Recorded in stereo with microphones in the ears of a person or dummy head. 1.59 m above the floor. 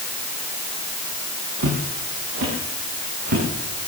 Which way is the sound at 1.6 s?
45° right (ahead or behind).